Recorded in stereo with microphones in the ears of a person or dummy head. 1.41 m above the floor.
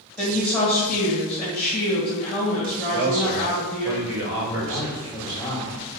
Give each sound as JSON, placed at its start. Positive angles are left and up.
{"t": 0.2, "sound": "a woman speaking", "side_deg": 5, "distance_m": 1.6}
{"t": 2.9, "sound": "a man speaking", "side_deg": -75, "distance_m": 1.2}
{"t": 4.4, "sound": "a man speaking", "side_deg": 15, "distance_m": 1.4}